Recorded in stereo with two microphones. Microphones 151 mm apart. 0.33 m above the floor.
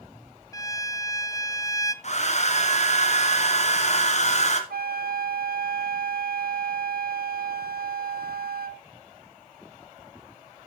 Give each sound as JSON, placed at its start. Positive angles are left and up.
{"t": 0.5, "sound": "a violin", "side_deg": 25, "distance_m": 0.6}
{"t": 2.0, "sound": "a hair dryer", "side_deg": 50, "distance_m": 1.8}
{"t": 4.7, "sound": "a flute", "side_deg": -85, "distance_m": 0.7}